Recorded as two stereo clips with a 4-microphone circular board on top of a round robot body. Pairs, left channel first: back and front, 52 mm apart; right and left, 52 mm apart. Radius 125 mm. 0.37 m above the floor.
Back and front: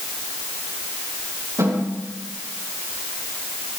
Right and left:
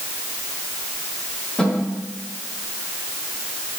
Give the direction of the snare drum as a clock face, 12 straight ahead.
1 o'clock.